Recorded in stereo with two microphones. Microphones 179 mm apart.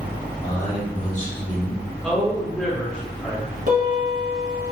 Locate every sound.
0.4 s a man speaking: 30° left (ahead or behind), 1.7 m
2.0 s a man speaking: 5° left (ahead or behind), 1.3 m
3.7 s a piano: 50° right (ahead or behind), 1.7 m